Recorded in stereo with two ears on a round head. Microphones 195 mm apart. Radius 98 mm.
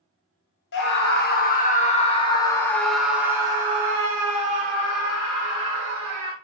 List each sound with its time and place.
0.7 s a scream: 55° left (ahead or behind), 1.4 m; by 6.3 s 55° right (ahead or behind), 2 m